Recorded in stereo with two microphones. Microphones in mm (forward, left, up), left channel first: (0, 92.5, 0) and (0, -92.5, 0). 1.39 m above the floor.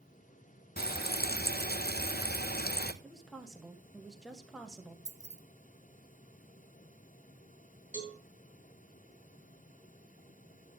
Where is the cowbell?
45° left (ahead or behind), 3 m.